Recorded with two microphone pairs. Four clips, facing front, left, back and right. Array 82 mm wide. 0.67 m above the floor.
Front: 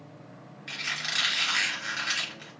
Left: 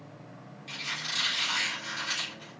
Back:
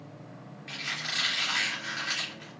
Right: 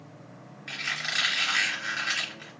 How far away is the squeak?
About 2.5 m.